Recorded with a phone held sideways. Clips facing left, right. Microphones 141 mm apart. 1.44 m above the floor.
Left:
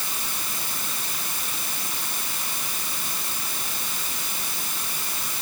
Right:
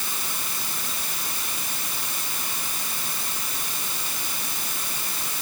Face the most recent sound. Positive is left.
No sound to turn to.